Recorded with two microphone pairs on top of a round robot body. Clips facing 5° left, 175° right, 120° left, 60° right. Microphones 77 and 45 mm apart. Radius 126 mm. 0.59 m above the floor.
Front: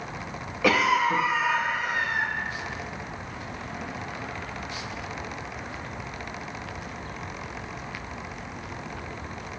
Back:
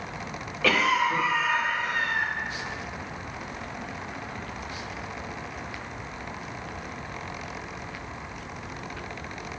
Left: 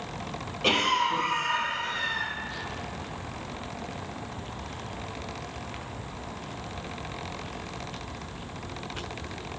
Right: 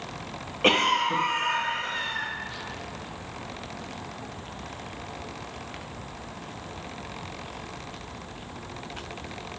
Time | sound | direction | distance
0.6 | a cough | 50° right | 0.8 m